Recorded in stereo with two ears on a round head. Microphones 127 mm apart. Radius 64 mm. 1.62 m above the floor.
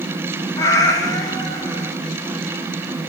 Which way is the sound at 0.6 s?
25° left (ahead or behind).